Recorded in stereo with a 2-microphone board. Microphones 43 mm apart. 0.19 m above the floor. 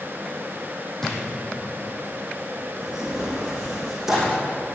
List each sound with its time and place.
1.0 s a drawer: 10° left (ahead or behind), 5.5 m
2.8 s tearing paper: 10° right (ahead or behind), 5 m